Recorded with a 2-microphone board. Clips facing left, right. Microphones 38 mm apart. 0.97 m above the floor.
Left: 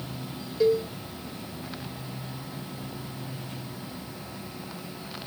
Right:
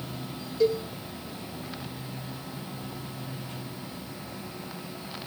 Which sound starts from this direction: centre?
A cowbell, at 0.6 s.